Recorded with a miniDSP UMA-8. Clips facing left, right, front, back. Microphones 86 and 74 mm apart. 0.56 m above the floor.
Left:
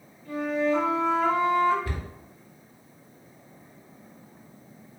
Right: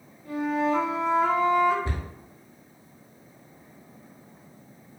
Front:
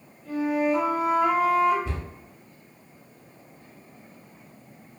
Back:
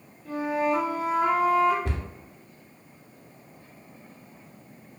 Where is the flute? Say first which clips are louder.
Even, front 2 dB; 155° right, 1.3 m.